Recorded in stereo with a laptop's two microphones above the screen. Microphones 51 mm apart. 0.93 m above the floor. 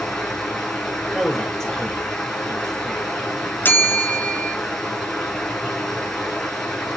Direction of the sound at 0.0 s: 10° left (ahead or behind).